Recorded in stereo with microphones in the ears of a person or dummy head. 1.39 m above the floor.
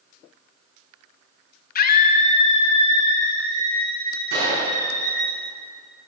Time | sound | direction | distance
1.8 | a scream | 50° left (ahead or behind) | 0.9 m
4.3 | a gunshot | 65° right (ahead or behind) | 5.5 m